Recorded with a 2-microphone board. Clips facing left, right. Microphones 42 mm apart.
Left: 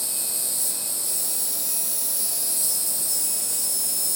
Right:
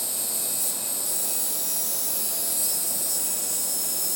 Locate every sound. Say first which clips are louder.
0.0 s an insect: even; 45° right (ahead or behind), 1.4 m